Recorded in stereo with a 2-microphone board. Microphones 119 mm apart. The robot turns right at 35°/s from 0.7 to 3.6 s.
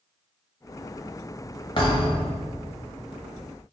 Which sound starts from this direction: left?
A thud, at 1.8 s.